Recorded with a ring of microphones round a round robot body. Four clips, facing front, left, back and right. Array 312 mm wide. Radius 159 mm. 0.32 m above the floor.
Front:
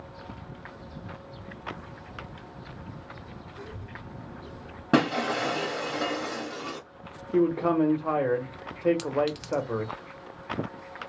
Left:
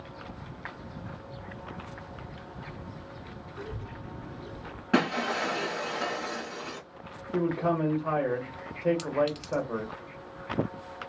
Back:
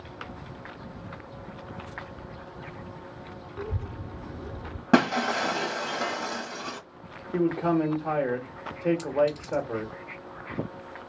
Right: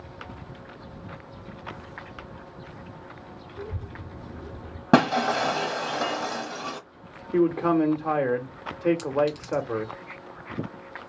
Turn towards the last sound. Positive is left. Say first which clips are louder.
# right 3 dB, back 2 dB
turn(degrees=5)